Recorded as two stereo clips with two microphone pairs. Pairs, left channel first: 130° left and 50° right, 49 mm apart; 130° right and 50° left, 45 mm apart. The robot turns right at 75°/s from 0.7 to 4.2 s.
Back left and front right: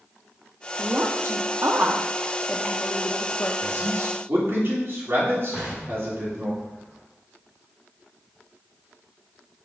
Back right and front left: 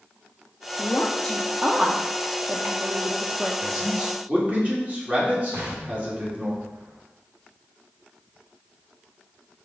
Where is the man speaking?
55° right, 2.5 m; by 6.5 s 10° right, 2.5 m.